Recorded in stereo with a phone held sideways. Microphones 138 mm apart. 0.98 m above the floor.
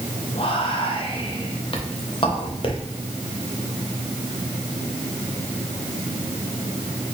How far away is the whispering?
About 1.1 m.